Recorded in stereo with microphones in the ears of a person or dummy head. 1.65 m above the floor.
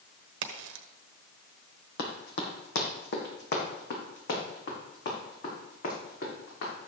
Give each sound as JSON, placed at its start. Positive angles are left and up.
{"t": 0.4, "sound": "a crack", "side_deg": -65, "distance_m": 1.1}
{"t": 2.0, "sound": "running footsteps", "side_deg": 55, "distance_m": 3.0}